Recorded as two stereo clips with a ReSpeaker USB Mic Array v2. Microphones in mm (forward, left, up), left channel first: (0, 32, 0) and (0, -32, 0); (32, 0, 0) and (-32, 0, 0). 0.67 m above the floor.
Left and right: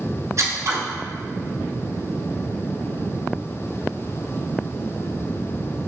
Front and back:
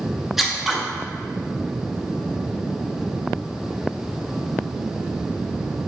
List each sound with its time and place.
0.4 s scissors: 95° right, 0.5 m